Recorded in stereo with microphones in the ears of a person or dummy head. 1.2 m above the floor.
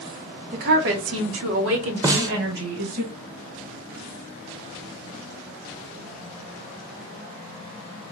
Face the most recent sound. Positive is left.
turn(degrees=-20)  # may be behind; listen again after turning